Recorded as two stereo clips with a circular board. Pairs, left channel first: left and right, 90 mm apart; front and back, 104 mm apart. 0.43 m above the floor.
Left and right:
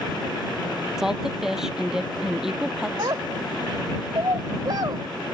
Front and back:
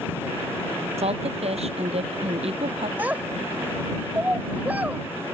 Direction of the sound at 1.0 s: 175° right.